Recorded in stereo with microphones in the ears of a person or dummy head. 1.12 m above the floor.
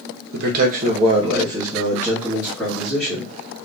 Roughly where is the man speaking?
Right.